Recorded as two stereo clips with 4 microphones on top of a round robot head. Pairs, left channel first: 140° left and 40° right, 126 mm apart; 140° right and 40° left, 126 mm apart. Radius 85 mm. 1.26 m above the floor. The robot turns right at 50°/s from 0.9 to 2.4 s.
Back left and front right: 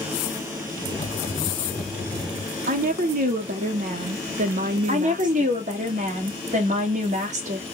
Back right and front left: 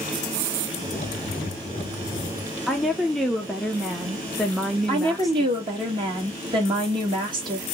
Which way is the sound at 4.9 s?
10° right.